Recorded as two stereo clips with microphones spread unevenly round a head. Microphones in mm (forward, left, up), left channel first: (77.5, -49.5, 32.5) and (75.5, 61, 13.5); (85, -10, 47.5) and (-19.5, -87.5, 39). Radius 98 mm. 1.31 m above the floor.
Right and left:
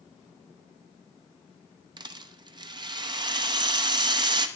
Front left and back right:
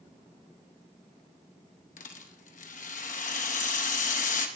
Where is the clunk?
No clunk in this recording.